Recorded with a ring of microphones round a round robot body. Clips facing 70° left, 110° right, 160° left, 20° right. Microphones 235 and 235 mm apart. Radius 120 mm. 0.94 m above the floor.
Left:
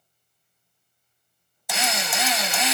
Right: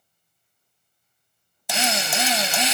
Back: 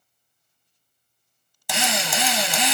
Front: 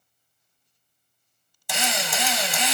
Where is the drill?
175° right, 0.8 m.